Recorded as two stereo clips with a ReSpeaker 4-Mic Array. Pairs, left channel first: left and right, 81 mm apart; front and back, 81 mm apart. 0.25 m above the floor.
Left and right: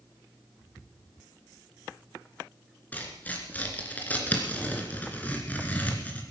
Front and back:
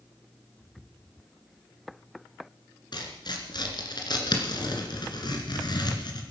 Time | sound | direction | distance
2.9 | tearing paper | 20° left | 2 m